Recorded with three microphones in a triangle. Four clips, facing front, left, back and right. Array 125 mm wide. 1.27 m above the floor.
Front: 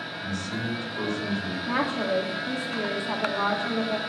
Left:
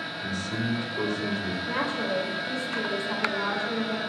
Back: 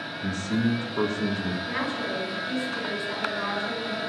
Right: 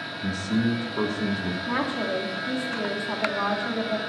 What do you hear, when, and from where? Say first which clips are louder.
0.2 s a man speaking: right 6 dB, back 6 dB; 125° right, 1.8 m
1.7 s a woman speaking: right 2 dB, front 4 dB; 45° right, 2.5 m